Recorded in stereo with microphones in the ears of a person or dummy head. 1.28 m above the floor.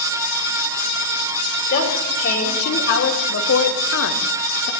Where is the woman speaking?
50° left (ahead or behind), 4.5 m.